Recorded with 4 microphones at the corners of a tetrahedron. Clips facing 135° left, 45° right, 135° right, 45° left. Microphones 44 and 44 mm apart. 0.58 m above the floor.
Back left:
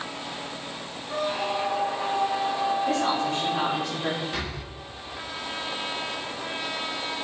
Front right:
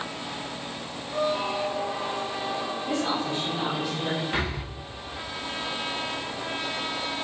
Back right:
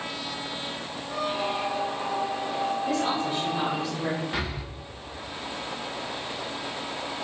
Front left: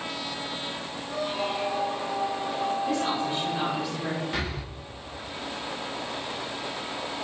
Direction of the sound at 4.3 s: 55° right.